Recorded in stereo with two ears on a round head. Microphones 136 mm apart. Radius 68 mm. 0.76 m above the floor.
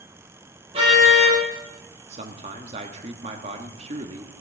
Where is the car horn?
40° right (ahead or behind), 8.5 m.